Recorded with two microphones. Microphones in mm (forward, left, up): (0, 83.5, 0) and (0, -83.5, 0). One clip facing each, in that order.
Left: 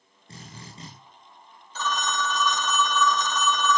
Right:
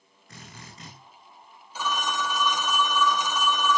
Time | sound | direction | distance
0.3 | a drill | 30° left (ahead or behind) | 9 m
1.8 | a phone ringing | 10° right (ahead or behind) | 1.0 m